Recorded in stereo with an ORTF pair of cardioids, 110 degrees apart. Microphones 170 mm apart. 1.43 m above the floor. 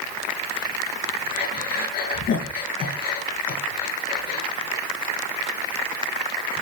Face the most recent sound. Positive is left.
turn(degrees=65)